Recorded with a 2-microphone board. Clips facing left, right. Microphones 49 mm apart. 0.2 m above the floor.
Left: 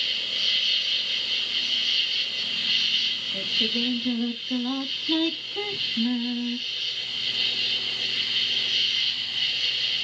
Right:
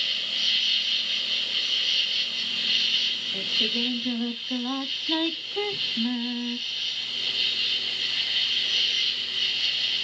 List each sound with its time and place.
0.0 s an insect: 5° right (ahead or behind), 1.6 m
3.3 s singing: 10° right (ahead or behind), 0.6 m